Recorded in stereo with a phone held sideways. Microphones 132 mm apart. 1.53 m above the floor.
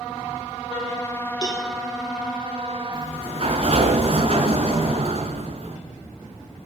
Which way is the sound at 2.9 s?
45° right (ahead or behind).